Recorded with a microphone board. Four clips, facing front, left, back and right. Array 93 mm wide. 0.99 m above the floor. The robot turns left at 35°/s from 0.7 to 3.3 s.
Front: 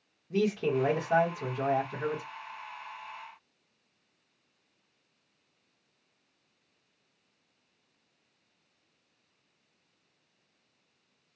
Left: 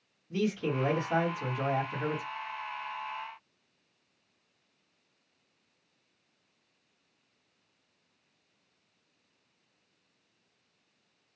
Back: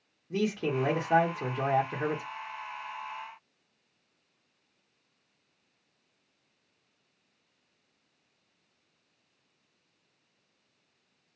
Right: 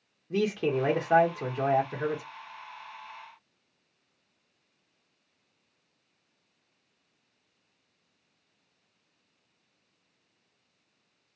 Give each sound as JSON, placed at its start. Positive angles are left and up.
{"t": 0.3, "sound": "a man speaking", "azimuth_deg": -100, "distance_m": 1.1}